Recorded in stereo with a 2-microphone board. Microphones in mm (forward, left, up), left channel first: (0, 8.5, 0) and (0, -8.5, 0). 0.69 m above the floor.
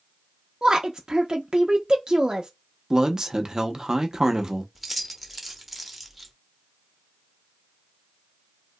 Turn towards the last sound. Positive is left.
turn(degrees=-5)  # may be behind; listen again after turning